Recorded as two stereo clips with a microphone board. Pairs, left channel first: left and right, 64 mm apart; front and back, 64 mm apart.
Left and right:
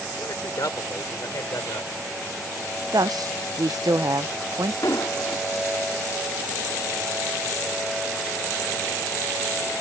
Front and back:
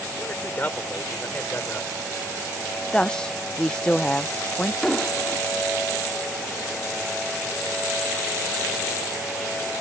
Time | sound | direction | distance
0.2 | a man speaking | 65° left | ?
2.9 | a woman speaking | 75° right | ?
4.8 | an explosion | 80° left | ?